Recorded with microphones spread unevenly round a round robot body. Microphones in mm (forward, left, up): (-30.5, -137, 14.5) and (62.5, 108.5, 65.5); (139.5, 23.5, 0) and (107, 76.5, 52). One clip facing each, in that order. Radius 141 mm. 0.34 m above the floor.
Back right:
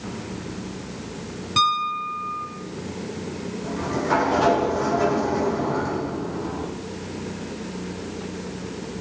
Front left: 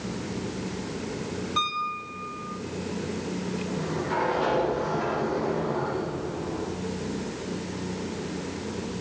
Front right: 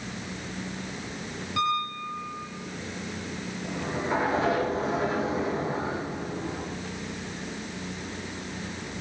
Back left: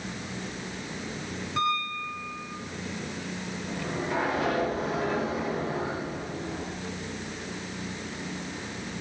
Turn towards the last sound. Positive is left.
turn(degrees=-130)